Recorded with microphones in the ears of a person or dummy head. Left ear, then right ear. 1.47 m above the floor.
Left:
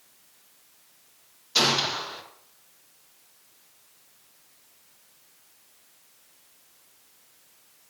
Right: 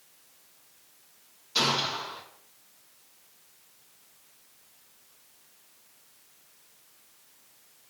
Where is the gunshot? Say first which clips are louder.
Left 3 dB; 15° left (ahead or behind), 0.9 m.